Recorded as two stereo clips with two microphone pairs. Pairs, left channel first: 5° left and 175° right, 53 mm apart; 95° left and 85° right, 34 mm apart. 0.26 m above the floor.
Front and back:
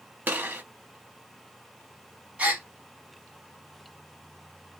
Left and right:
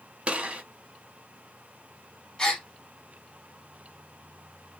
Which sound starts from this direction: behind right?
A gunshot, at 0.3 s.